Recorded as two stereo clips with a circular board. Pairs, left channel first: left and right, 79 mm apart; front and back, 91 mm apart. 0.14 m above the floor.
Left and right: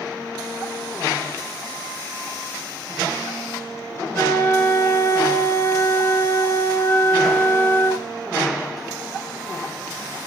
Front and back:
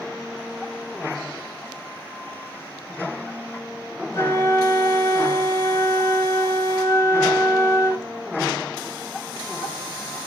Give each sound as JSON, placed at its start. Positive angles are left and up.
{"t": 4.1, "sound": "a flute", "azimuth_deg": 45, "distance_m": 2.5}